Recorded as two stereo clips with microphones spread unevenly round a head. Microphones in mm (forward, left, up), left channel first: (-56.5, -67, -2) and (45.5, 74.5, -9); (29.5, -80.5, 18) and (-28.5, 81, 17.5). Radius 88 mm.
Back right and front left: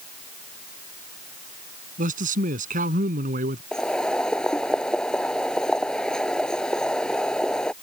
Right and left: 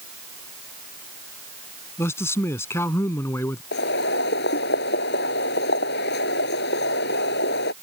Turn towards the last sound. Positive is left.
turn(degrees=-40)